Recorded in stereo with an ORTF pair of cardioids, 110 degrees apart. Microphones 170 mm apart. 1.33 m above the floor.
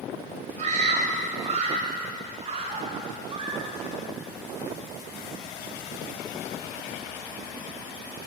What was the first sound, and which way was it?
A scream, 40° right.